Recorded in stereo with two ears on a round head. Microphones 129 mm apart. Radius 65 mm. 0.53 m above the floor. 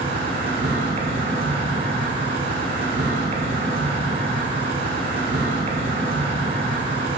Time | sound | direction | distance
0.0 | an insect | 45° right (ahead or behind) | 1.5 m